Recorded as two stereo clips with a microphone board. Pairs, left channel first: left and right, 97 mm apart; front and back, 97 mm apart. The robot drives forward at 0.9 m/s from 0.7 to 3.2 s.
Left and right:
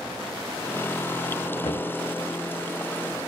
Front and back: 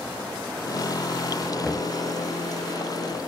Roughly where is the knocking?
Left.